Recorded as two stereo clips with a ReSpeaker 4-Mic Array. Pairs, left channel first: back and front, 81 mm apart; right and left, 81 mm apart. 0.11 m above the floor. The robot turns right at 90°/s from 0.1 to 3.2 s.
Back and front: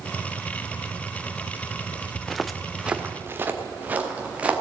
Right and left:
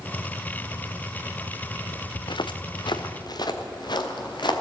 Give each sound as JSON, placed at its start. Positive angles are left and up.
{"t": 2.1, "sound": "footsteps", "azimuth_deg": -90, "distance_m": 0.7}